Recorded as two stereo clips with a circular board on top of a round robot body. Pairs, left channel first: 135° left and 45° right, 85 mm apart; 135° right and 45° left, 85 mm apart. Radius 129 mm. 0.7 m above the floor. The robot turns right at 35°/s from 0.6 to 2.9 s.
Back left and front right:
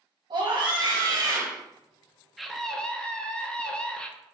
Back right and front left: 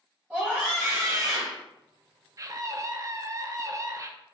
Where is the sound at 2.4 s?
45° left, 0.7 m; by 4.1 s 60° left, 0.7 m.